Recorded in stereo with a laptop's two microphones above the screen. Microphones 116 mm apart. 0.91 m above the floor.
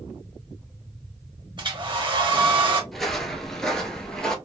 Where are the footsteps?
5° left (ahead or behind), 0.9 m.